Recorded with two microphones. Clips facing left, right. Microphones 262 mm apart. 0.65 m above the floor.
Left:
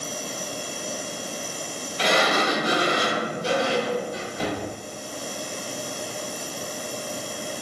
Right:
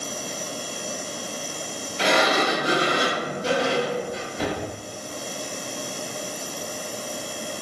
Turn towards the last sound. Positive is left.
turn(degrees=-25)  # may be behind; listen again after turning